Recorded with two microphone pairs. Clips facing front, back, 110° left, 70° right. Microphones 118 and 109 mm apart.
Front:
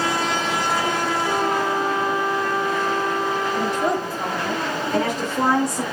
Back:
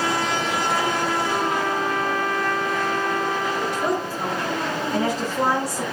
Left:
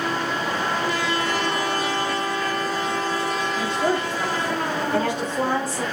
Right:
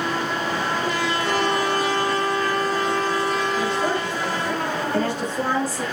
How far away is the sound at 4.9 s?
About 3 m.